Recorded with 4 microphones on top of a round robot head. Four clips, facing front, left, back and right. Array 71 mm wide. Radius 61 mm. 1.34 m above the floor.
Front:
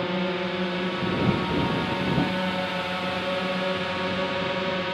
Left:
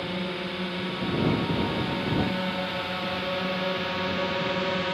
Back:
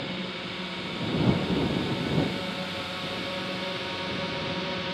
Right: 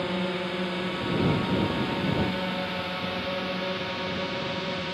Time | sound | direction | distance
0.0 | a drone | 20° right | ?